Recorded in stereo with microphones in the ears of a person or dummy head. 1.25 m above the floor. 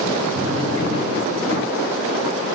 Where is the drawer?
40° right (ahead or behind), 3 m.